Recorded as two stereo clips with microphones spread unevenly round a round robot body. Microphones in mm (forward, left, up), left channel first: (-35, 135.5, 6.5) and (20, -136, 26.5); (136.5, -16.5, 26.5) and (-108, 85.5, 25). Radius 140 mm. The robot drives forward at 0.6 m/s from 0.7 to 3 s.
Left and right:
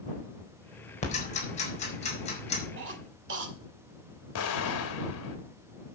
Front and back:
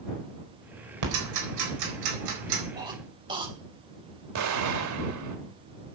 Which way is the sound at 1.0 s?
165° left.